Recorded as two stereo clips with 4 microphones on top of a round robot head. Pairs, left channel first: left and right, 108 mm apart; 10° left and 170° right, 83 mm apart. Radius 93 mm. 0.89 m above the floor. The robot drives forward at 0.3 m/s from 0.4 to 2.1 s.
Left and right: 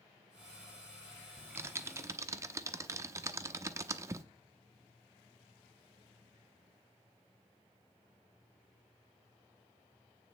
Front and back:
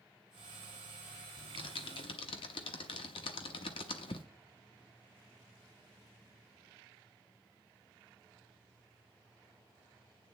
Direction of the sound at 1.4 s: 20° right.